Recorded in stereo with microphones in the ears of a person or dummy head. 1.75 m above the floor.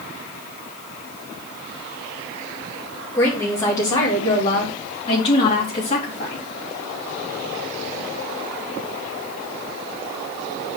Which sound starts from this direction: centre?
A woman speaking, at 3.1 s.